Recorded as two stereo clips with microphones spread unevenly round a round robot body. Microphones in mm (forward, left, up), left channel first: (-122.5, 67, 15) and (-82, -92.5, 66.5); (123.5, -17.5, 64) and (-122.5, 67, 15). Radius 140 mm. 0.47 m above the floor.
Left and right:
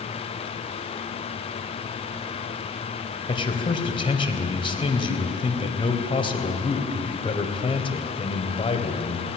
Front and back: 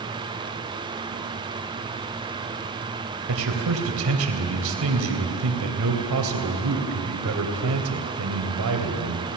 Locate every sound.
3.3 s a man speaking: 150° left, 3 m